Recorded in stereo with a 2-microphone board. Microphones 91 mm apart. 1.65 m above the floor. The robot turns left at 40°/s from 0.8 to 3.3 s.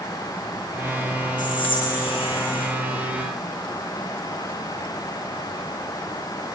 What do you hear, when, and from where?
1.4 s whispering: 125° left, 1.9 m; by 2.7 s 70° left, 1.9 m